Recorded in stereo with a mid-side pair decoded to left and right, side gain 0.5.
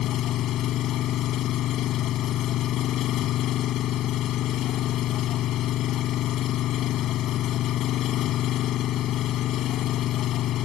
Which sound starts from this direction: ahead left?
An engine running, at 0.0 s.